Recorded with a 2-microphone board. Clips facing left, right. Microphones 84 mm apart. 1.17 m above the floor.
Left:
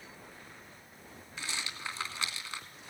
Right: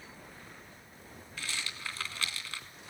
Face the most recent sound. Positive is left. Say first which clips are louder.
# even
turn(degrees=25)  # may be behind; listen again after turning